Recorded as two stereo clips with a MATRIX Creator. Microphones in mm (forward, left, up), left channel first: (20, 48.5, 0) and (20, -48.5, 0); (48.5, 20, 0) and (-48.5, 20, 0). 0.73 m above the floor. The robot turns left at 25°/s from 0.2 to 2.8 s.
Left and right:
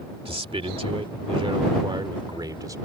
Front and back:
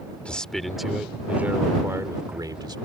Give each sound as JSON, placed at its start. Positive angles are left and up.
{"t": 0.2, "sound": "a man speaking", "azimuth_deg": -80}